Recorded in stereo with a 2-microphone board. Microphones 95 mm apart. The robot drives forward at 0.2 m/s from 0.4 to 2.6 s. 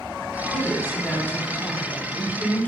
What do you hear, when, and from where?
0.5 s a woman speaking: 10° left (ahead or behind), 1.1 m